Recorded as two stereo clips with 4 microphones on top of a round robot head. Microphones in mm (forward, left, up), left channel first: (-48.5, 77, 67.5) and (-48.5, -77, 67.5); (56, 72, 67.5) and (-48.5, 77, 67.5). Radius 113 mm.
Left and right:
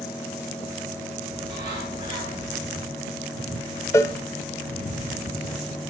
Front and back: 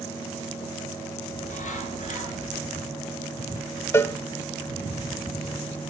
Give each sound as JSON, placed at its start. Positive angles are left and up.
{"t": 1.3, "sound": "a bird", "azimuth_deg": -25, "distance_m": 7.5}
{"t": 3.9, "sound": "a cowbell", "azimuth_deg": 30, "distance_m": 0.6}